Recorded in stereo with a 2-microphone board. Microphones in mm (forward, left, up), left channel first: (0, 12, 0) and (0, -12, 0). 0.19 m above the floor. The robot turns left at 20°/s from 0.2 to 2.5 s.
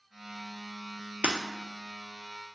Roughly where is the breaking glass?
Right.